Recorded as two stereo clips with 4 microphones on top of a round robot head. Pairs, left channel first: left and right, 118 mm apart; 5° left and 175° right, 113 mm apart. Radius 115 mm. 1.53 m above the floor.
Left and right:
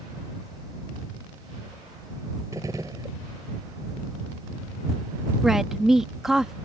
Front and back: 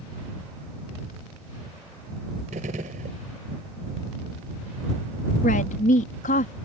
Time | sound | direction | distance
2.5 | a gunshot | 160° right | ?
5.4 | a woman speaking | 5° right | ?